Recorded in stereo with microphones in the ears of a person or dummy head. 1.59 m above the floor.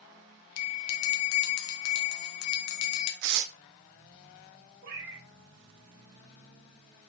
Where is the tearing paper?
60° right (ahead or behind), 0.7 m.